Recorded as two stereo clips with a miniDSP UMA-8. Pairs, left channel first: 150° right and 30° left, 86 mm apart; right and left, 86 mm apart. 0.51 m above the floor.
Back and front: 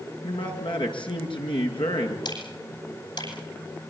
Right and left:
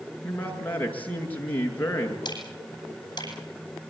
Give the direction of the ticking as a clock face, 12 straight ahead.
4 o'clock.